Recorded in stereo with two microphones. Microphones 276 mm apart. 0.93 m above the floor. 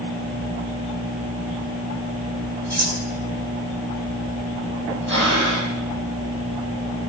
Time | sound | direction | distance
2.7 | cutlery clinking | 70° right (ahead or behind) | 1.6 m
5.1 | breathing | 45° right (ahead or behind) | 6 m